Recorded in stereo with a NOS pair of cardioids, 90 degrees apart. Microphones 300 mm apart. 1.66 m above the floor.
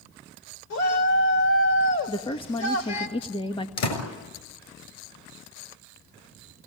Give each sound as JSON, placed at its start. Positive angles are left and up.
{"t": 0.7, "sound": "a shout", "azimuth_deg": 65, "distance_m": 4.0}
{"t": 2.1, "sound": "a woman speaking", "azimuth_deg": 20, "distance_m": 1.8}
{"t": 3.8, "sound": "a door slam", "azimuth_deg": 65, "distance_m": 5.5}